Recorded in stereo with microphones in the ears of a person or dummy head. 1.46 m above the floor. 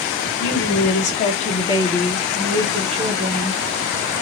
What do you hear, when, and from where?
0.4 s a woman speaking: 55° left (ahead or behind), 1.1 m; by 3.6 s 45° right (ahead or behind), 1.2 m